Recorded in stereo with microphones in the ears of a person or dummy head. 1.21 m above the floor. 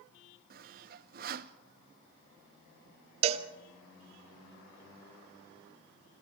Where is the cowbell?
40° right (ahead or behind), 1.1 m.